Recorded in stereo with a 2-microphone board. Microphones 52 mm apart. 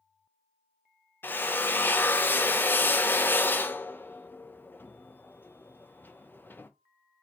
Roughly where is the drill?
Left.